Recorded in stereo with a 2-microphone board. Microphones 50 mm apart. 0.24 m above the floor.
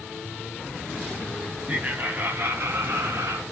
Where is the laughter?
25° right (ahead or behind), 1.9 m; by 3.4 s 65° right (ahead or behind), 4 m.